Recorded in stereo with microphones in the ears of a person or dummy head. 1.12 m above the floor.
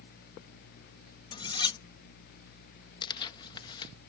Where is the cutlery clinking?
30° left (ahead or behind).